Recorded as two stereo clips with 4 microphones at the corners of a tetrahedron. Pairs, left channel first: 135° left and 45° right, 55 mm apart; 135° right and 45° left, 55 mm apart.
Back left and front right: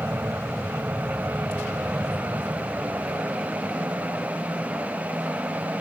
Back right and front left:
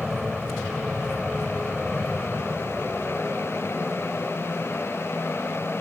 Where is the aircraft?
35° right; by 5.8 s 60° right.